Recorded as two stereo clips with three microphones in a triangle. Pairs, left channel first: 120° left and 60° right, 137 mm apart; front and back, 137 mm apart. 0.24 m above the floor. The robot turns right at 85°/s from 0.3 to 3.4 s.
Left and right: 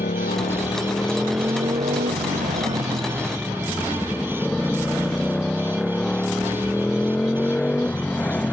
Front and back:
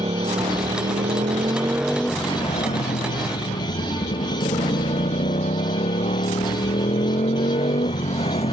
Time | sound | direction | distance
0.0 | a motorcycle | 130° left | ?